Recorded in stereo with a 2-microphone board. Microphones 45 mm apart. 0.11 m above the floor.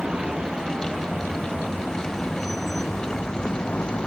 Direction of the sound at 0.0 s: 15° right (ahead or behind).